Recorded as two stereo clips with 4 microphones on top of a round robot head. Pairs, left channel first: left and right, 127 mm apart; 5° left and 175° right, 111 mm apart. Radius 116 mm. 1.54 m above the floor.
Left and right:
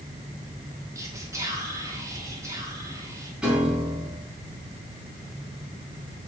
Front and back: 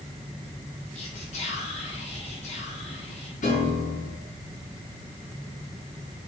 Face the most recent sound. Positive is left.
turn(degrees=-5)